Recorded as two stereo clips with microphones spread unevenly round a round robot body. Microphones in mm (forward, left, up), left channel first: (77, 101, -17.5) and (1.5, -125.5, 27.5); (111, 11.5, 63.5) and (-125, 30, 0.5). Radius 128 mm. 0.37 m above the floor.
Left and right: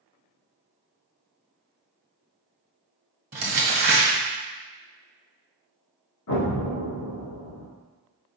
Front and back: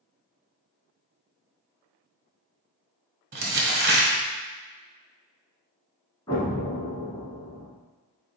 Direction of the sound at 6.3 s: 70° left.